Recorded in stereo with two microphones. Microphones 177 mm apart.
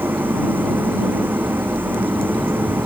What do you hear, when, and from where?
0.0 s an engine running: 10° right (ahead or behind)